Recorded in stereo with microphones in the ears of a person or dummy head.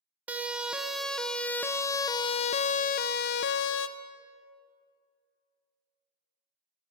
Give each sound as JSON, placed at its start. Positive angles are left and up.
{"t": 0.3, "sound": "a siren", "side_deg": -10, "distance_m": 2.0}